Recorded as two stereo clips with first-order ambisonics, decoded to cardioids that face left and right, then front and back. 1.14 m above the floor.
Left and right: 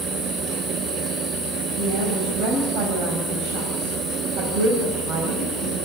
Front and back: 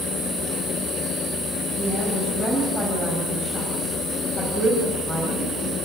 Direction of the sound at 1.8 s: 70° right.